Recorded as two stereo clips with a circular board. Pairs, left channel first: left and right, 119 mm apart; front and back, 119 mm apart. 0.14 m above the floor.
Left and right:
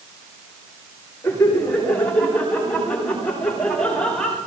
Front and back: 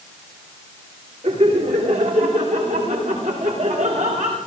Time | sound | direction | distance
1.2 | laughter | 165° left | 9.5 m